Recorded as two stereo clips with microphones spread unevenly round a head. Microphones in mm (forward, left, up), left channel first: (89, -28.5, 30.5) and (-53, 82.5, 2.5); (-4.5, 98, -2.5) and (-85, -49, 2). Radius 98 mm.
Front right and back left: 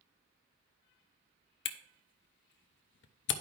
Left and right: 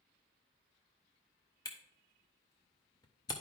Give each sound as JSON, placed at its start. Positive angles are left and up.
{"t": 1.6, "sound": "a camera shutter", "azimuth_deg": -10, "distance_m": 0.5}